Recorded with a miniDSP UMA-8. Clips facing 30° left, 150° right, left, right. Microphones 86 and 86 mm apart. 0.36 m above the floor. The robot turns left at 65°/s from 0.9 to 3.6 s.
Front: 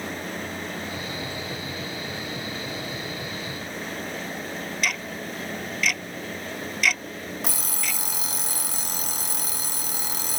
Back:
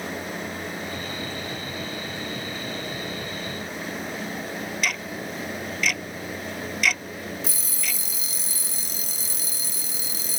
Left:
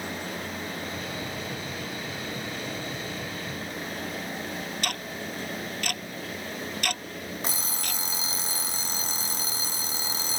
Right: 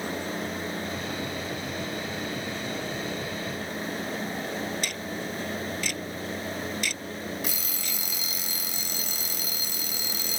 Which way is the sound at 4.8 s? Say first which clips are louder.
Even, right 1 dB; 120° left.